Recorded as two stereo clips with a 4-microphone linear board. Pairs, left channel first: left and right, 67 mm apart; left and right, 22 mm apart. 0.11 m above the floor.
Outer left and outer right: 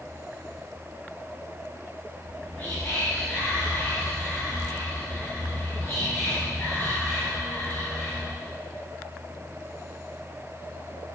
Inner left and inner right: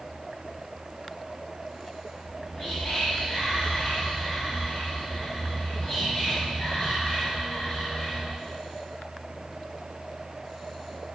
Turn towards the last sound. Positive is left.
turn(degrees=40)  # may be behind; listen again after turning